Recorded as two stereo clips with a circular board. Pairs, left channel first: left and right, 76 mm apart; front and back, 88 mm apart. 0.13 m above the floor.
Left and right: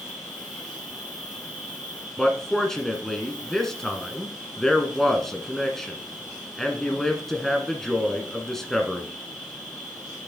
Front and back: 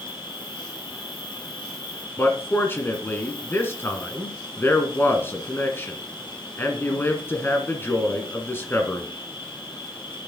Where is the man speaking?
10° left, 1.7 m.